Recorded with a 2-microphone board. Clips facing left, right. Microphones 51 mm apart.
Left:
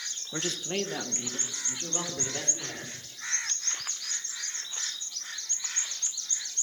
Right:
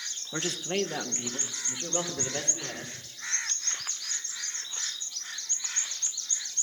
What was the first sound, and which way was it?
A man speaking, 10° right (ahead or behind).